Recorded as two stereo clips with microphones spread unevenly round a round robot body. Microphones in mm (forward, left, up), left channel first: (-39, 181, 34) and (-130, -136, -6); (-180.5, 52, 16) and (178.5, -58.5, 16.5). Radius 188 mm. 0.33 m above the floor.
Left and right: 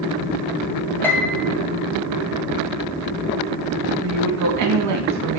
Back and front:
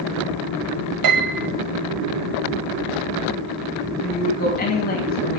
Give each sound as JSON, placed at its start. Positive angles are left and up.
{"t": 1.0, "sound": "a piano", "azimuth_deg": -15, "distance_m": 2.0}
{"t": 4.0, "sound": "a woman speaking", "azimuth_deg": -130, "distance_m": 3.0}